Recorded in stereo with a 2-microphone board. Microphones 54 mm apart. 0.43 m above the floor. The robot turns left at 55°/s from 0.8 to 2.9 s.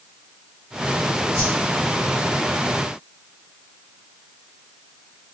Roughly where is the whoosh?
Centre.